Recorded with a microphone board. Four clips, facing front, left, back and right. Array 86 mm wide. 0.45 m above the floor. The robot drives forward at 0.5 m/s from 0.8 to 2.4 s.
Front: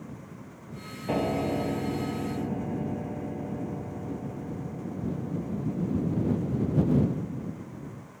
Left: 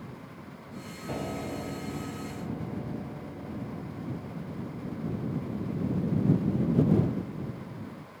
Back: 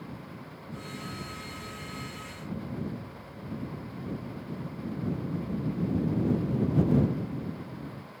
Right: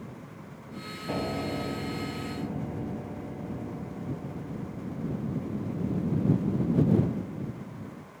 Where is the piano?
5° right; by 7.4 s 10° right.